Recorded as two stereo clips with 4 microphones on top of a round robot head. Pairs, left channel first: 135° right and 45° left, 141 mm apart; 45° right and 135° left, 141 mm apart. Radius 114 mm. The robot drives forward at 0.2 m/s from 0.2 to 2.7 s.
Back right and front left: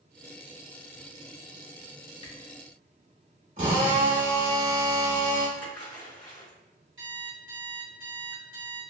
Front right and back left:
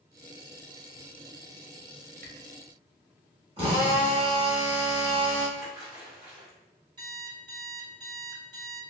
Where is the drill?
90° left, 1.0 m.